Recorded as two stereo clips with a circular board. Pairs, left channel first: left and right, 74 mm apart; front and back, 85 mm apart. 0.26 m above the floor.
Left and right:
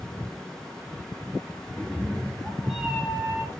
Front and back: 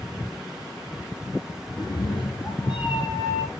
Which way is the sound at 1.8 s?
20° left.